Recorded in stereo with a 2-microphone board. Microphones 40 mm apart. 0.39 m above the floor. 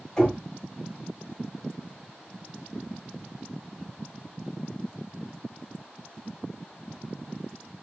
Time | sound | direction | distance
0.2 | knocking | 15° left (ahead or behind) | 1.9 m